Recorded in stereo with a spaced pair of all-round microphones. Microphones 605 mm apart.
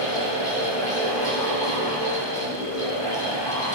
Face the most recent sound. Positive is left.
turn(degrees=10)  # may be behind; listen again after turning